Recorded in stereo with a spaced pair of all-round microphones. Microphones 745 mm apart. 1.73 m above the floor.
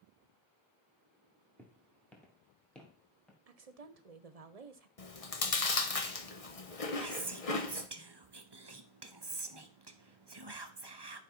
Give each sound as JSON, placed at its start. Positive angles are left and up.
{"t": 1.6, "sound": "footsteps", "side_deg": 0, "distance_m": 1.9}
{"t": 3.5, "sound": "a woman speaking", "side_deg": -55, "distance_m": 1.0}
{"t": 5.0, "sound": "chewing", "side_deg": 50, "distance_m": 1.2}
{"t": 7.0, "sound": "whispering", "side_deg": -35, "distance_m": 0.9}